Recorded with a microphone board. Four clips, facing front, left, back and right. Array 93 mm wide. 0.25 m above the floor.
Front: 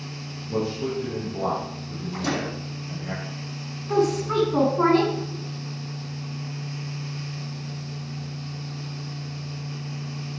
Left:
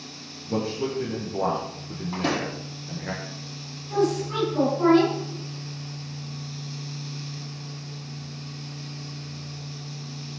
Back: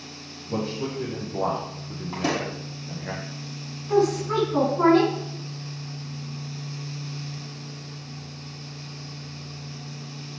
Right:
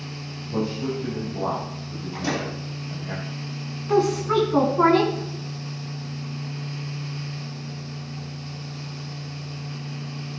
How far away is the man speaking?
About 4.5 m.